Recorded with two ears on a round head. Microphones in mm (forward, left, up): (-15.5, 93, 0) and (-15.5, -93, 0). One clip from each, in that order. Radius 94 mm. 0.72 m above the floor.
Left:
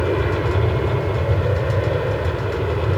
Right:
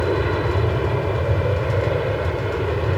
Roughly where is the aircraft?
Centre.